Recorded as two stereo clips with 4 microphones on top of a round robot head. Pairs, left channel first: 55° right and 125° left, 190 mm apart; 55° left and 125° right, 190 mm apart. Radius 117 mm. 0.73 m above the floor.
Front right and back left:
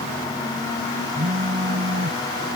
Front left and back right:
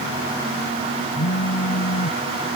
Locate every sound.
1.1 s a phone buzzing: 70° left